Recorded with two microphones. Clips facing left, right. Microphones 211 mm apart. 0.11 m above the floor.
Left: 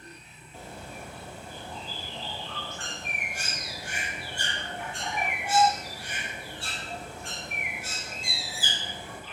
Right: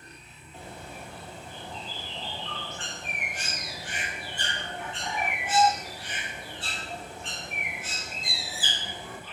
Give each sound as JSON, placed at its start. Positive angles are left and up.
{"t": 0.5, "sound": "a bird", "side_deg": 10, "distance_m": 0.8}